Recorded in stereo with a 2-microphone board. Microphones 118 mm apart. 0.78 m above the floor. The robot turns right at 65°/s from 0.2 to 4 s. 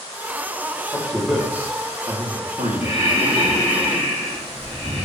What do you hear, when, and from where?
0.9 s a man speaking: 20° left (ahead or behind), 1.7 m; by 3.7 s 15° right (ahead or behind), 1.7 m
2.8 s breathing: 155° right, 3 m; by 5.0 s 75° right, 3 m